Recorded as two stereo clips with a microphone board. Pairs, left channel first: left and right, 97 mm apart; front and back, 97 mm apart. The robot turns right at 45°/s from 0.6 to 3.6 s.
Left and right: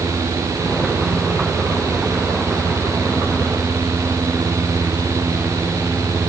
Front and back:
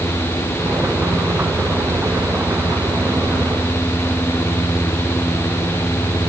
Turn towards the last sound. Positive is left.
No sound to turn to.